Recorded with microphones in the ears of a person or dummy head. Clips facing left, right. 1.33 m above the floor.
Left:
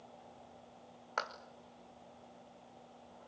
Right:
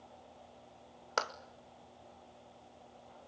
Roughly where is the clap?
Right.